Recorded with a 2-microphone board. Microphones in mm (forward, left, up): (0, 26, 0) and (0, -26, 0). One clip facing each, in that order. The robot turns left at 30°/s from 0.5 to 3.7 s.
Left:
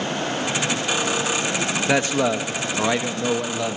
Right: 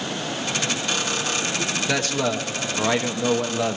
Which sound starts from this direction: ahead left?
A man speaking, at 1.9 s.